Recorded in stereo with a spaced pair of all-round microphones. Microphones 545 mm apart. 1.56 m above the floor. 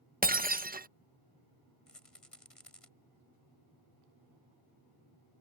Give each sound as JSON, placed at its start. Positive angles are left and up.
{"t": 0.2, "sound": "breaking glass", "side_deg": -15}
{"t": 1.9, "sound": "a rattle", "side_deg": 90}